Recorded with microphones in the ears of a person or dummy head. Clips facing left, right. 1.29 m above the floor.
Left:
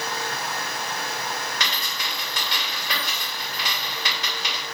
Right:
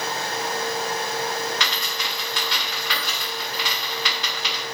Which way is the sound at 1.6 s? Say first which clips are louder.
Right 2 dB; 30° left (ahead or behind).